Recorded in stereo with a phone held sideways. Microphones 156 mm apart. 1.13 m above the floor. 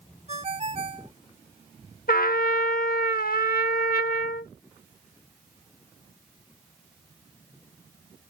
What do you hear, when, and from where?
0.3 s a ringtone: 45° right (ahead or behind)
2.1 s a trumpet: 75° left (ahead or behind)